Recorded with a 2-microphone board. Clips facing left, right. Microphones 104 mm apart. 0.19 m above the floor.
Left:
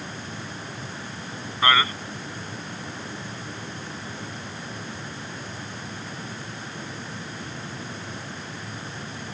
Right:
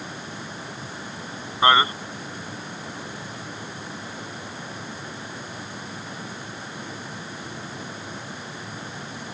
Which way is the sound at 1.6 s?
25° right (ahead or behind).